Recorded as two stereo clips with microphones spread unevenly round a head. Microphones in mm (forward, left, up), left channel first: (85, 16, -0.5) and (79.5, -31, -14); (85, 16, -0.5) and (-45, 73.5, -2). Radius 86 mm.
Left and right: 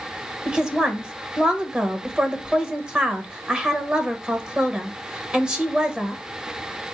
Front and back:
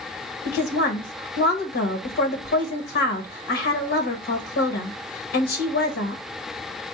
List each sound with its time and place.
0.5 s a woman speaking: 30° right, 1.1 m